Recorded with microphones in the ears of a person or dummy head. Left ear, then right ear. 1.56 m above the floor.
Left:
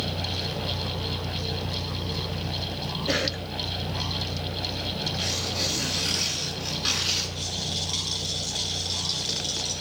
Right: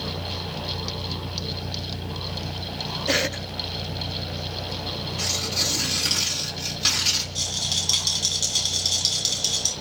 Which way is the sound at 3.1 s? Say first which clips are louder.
Right 3 dB; 20° right (ahead or behind).